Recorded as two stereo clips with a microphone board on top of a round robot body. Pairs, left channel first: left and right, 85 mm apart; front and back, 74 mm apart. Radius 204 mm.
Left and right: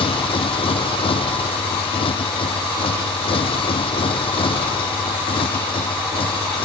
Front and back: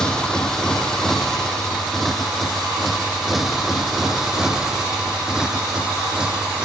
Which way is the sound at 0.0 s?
80° left.